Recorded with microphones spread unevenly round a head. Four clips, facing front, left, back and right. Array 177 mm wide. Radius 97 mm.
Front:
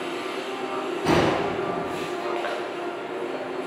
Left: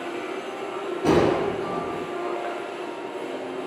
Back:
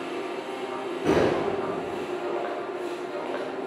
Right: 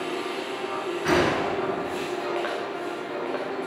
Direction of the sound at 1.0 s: 115° left.